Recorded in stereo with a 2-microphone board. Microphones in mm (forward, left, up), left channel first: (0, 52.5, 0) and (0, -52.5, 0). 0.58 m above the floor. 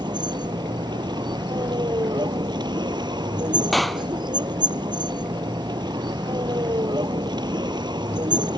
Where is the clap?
Centre (ahead or behind).